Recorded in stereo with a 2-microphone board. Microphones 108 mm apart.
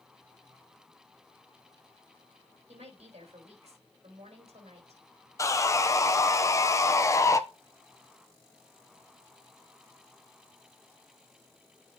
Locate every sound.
2.7 s a woman speaking: 80° right, 4.5 m
5.4 s sawing: 30° left (ahead or behind), 0.6 m